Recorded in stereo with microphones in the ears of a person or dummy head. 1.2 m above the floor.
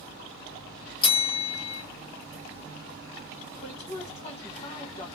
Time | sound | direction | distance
1.0 | a bell | 30° left (ahead or behind) | 0.9 m
3.6 | a woman speaking | 35° left (ahead or behind) | 1.2 m